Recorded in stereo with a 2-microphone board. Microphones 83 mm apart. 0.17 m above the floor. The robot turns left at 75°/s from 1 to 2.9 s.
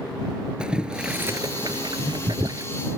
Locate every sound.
0.6 s boiling: 10° right (ahead or behind); by 2.7 s 40° right (ahead or behind)